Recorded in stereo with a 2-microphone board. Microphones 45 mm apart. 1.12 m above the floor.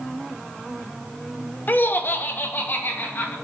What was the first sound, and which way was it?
Laughter, 45° left (ahead or behind).